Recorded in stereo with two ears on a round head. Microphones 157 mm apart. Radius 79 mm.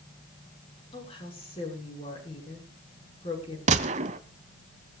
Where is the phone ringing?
No phone ringing in this recording.